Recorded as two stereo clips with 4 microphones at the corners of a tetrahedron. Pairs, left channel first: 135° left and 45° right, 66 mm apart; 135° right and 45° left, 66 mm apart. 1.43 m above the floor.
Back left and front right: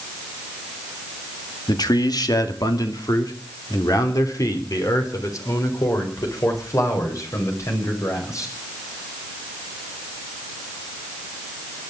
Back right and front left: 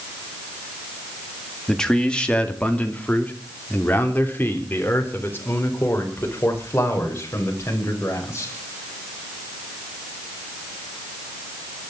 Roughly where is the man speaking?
Behind left.